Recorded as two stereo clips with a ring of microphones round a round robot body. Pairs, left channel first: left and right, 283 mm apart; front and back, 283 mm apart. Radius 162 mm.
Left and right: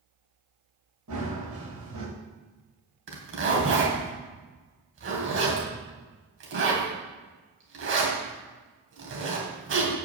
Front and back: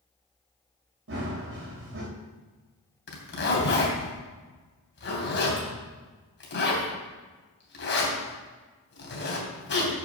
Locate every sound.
1.1 s running footsteps: 135° right, 5 m
3.1 s a zipper: 45° right, 3 m